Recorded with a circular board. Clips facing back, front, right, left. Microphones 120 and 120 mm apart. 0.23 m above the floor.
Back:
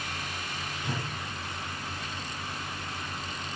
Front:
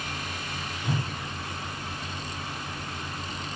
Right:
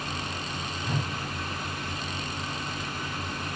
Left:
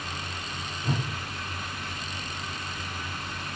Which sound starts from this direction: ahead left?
A whoosh, at 0.8 s.